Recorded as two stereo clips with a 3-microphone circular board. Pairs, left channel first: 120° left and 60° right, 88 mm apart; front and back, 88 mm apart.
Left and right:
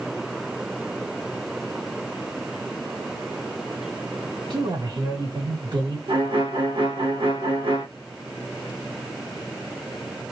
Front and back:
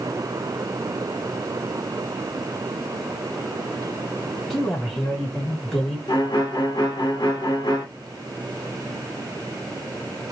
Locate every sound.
4.5 s a man speaking: 90° right, 1.6 m
6.1 s a violin: 40° right, 1.1 m